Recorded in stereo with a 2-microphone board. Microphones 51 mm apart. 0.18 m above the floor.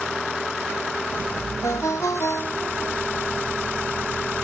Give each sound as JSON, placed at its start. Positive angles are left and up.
{"t": 1.6, "sound": "a ringtone", "side_deg": 80}